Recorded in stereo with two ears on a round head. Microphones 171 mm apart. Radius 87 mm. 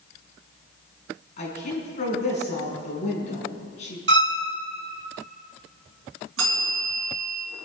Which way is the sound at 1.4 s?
35° left (ahead or behind).